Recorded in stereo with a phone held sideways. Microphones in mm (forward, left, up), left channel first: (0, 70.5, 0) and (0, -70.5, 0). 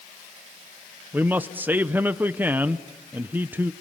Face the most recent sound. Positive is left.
turn(degrees=-15)  # may be behind; listen again after turning